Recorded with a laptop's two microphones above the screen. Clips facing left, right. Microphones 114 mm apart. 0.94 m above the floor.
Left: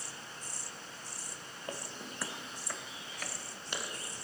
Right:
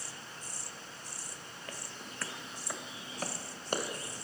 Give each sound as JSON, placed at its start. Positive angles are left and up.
{"t": 1.7, "sound": "footsteps", "side_deg": 25, "distance_m": 1.4}